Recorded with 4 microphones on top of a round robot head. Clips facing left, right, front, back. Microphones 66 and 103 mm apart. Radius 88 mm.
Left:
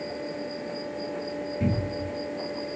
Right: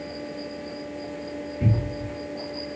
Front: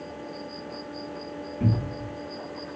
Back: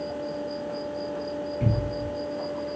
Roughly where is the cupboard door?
Ahead left.